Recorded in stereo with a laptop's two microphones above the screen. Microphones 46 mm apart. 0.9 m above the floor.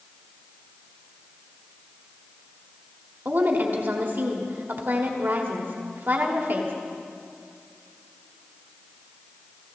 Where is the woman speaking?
50° right (ahead or behind), 1.7 m.